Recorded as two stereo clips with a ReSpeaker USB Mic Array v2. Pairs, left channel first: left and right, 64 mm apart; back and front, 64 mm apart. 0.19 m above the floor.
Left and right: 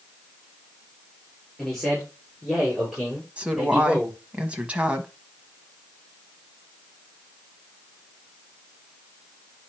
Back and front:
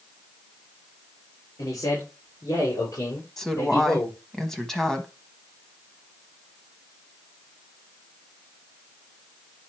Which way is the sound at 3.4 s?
110° right.